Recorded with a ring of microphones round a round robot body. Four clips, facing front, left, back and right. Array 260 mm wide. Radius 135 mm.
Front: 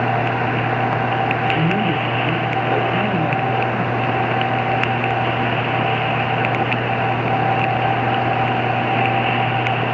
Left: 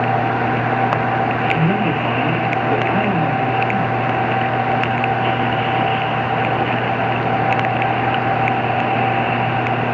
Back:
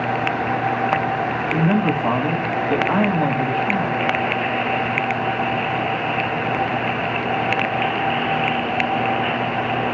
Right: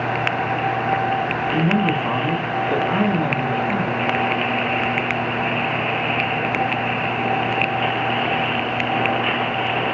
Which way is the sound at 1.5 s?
160° left.